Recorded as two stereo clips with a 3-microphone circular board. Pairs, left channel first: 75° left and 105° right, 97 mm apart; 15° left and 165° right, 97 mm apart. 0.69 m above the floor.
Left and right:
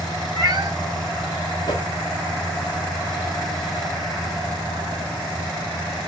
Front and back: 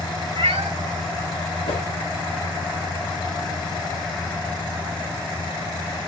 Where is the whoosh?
25° left, 2.5 m.